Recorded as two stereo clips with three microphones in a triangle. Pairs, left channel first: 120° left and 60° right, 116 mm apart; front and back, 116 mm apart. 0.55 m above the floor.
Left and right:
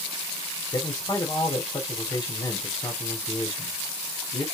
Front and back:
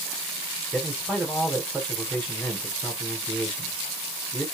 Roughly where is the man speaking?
Left.